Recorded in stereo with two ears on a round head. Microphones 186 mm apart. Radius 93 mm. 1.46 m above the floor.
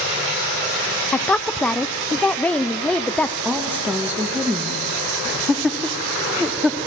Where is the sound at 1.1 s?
5° left (ahead or behind), 0.5 m.